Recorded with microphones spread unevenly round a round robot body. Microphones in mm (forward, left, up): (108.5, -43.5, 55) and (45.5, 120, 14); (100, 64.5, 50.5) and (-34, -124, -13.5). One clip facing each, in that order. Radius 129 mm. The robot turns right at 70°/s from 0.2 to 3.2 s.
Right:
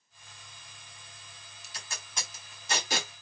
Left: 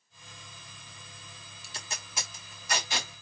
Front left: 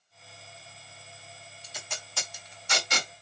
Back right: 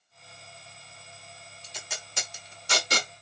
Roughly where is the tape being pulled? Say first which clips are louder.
Left 3 dB, even; behind left.